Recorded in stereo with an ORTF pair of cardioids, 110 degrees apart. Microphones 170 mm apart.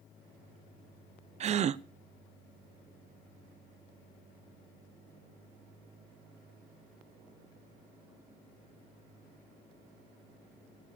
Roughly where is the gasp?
Ahead right.